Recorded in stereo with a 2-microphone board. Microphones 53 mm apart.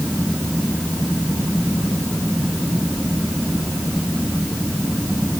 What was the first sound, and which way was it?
Only background noise.